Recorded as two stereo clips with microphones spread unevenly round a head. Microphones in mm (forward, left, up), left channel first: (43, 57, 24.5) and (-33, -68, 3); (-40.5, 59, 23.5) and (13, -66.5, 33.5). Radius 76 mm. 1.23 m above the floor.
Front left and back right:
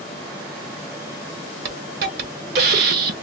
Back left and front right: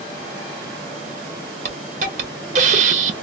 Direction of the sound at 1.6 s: 100° right.